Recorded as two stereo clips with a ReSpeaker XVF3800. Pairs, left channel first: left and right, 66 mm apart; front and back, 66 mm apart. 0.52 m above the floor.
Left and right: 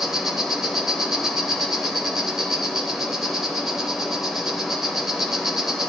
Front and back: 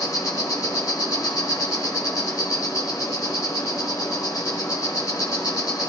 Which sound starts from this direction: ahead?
An insect, at 0.0 s.